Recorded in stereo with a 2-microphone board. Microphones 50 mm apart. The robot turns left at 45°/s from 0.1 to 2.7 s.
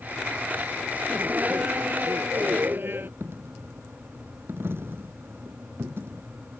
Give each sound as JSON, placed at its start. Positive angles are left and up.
{"t": 1.1, "sound": "laughter", "azimuth_deg": -25}
{"t": 3.2, "sound": "a dropped coin", "side_deg": -55}